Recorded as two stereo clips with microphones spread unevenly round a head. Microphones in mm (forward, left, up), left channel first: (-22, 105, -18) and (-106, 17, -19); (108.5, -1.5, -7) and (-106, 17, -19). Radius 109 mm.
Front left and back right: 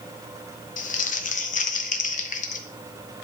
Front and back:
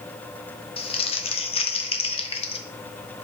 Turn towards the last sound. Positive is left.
turn(degrees=60)